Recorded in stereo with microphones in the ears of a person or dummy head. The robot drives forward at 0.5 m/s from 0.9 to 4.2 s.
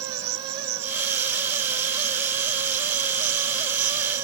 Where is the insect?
40° right (ahead or behind); by 4.2 s 45° right (ahead or behind).